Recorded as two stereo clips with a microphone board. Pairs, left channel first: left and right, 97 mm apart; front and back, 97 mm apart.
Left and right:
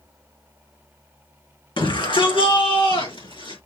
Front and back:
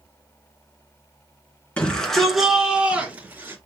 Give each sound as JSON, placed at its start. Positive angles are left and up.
{"t": 1.8, "sound": "a shout", "azimuth_deg": 75, "distance_m": 3.0}